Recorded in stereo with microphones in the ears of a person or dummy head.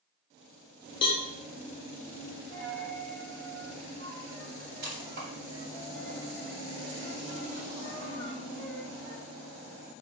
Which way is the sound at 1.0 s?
25° left (ahead or behind).